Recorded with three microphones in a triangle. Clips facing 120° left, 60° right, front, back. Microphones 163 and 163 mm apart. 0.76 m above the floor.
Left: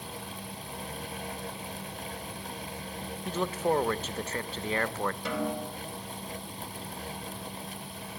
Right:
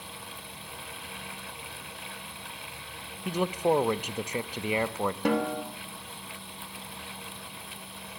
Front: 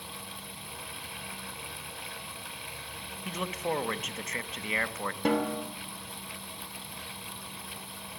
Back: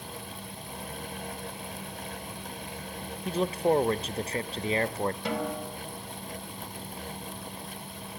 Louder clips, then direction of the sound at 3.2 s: Right 3 dB, back 8 dB; 135° right.